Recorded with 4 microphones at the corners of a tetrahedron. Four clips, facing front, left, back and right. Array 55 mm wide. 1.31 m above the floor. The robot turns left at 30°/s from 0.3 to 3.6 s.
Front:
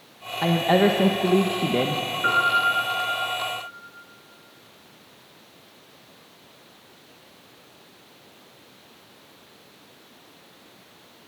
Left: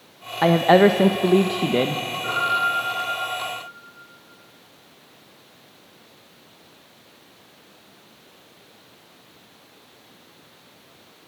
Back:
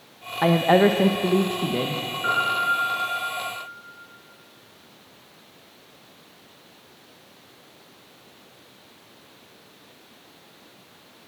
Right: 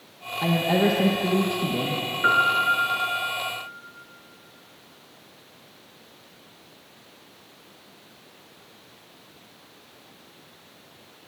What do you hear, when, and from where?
0.4 s a woman speaking: 115° left, 0.9 m; by 2.0 s 65° left, 0.9 m
2.2 s a piano: 65° right, 5 m; by 3.4 s 100° right, 5 m